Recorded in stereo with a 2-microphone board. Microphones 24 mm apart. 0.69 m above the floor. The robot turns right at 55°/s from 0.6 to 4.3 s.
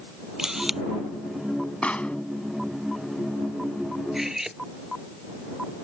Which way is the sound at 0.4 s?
20° right (ahead or behind).